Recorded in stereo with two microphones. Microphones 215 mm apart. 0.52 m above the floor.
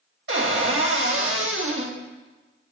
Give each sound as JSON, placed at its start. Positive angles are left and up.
{"t": 0.3, "sound": "a cupboard door", "side_deg": -75, "distance_m": 0.8}